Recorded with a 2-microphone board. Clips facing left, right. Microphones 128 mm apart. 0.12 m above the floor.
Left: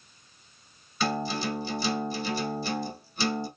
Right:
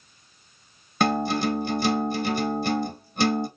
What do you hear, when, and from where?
1.0 s a guitar: 55° right (ahead or behind), 1.0 m